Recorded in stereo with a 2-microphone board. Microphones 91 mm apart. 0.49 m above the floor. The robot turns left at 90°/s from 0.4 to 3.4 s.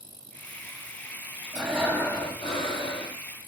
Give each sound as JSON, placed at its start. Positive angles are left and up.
{"t": 1.5, "sound": "breathing", "azimuth_deg": -160, "distance_m": 4.0}